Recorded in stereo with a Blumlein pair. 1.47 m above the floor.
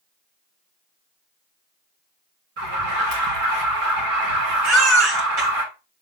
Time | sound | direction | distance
2.6 | an alarm | 50° right | 2.5 m
4.6 | a baby crying | 35° right | 2.5 m